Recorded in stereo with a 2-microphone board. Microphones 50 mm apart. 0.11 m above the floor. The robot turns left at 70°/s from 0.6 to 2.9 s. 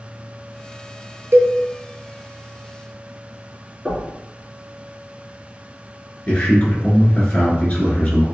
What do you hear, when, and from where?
1.3 s a cowbell: 45° right (ahead or behind), 0.5 m; by 1.5 s 40° right (ahead or behind), 0.5 m
3.9 s knocking: 10° left (ahead or behind), 1.4 m
6.3 s a man speaking: 30° left (ahead or behind), 1.2 m